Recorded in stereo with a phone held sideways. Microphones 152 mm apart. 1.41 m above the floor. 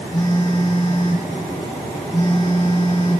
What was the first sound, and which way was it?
A phone buzzing, 30° left (ahead or behind).